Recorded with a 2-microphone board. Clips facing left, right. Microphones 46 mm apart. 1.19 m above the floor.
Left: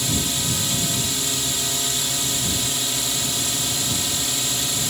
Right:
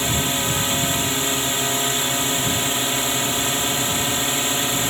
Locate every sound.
0.0 s a drone: 35° right (ahead or behind)